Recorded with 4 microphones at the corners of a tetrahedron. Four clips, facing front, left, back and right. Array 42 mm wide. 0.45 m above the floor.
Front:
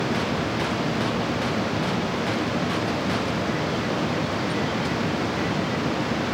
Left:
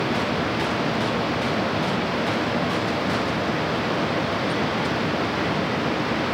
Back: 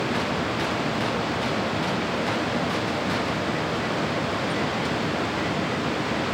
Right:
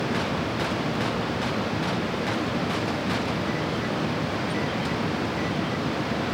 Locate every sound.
Only background noise.